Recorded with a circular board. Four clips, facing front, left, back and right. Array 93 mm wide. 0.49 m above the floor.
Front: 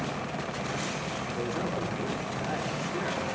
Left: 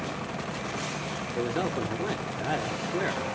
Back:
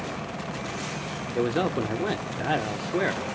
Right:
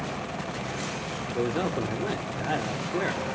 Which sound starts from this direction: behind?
A man speaking, at 1.4 s.